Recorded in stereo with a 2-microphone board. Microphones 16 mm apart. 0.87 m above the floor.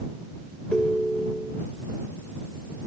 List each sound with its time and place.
0.7 s a ringtone: 70° left (ahead or behind)